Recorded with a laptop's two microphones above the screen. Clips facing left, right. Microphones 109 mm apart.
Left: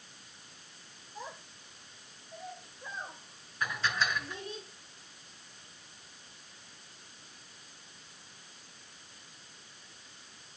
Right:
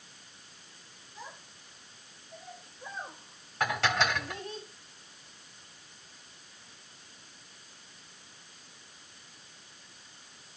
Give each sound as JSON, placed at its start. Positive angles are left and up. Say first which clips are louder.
{"t": 1.1, "sound": "a child speaking", "louder": "left 3 dB", "side_deg": 45, "distance_m": 2.0}
{"t": 3.6, "sound": "dishes clattering", "louder": "right 5 dB", "side_deg": -80, "distance_m": 1.6}